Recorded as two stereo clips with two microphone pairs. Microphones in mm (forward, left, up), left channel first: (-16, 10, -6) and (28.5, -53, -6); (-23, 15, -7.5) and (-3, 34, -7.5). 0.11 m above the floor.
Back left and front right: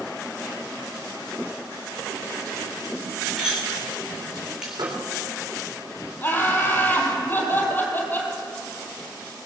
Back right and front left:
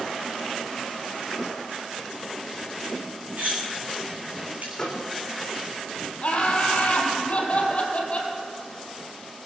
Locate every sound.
3.4 s cutlery clinking: 25° left, 4.5 m
4.7 s a microwave: 70° right, 3.5 m
6.2 s laughter: 175° right, 3 m